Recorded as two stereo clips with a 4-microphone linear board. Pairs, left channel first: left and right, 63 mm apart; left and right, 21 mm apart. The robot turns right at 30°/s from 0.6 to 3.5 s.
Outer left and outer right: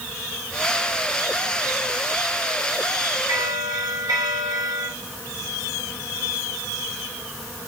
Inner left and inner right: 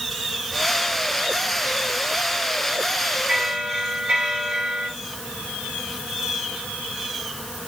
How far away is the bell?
About 3.5 m.